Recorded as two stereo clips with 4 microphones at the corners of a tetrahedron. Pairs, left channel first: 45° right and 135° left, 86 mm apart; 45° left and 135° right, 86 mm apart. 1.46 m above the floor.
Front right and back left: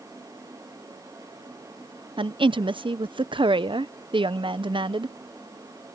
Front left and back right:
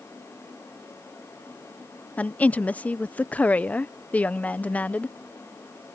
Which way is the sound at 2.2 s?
120° left.